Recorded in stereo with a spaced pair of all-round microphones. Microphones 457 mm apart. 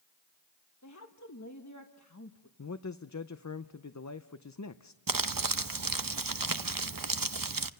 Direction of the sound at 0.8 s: 40° left (ahead or behind).